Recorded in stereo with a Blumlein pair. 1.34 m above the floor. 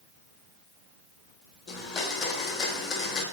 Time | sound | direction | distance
1.7 | a blender | 25° left | 1.0 m